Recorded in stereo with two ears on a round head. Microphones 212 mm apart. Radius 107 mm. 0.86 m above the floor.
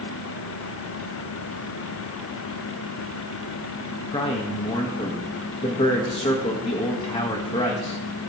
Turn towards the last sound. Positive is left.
turn(degrees=25)  # may be behind; listen again after turning